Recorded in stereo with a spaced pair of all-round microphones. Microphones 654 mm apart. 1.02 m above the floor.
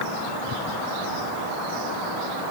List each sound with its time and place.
Only background noise.